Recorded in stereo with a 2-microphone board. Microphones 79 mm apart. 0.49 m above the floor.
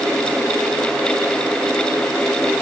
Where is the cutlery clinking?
I don't hear cutlery clinking.